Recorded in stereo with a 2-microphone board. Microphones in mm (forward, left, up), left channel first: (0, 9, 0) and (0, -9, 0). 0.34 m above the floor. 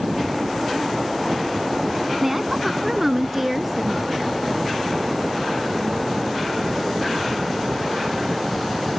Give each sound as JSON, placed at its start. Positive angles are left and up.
{"t": 2.2, "sound": "a woman speaking", "side_deg": -20}